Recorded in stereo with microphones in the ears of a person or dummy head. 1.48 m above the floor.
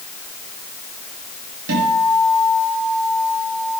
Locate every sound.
1.7 s a guitar: 75° right (ahead or behind), 7.5 m